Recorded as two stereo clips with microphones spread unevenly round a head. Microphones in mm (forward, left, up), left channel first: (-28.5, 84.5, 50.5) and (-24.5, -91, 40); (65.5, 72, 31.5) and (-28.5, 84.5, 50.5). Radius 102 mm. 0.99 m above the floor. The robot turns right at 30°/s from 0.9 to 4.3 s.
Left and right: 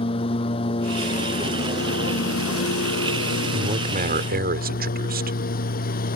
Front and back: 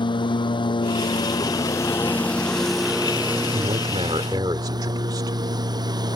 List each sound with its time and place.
0.0 s a lawn mower: 30° left; by 6.2 s 130° left
3.5 s a man speaking: 145° right; by 5.4 s 125° right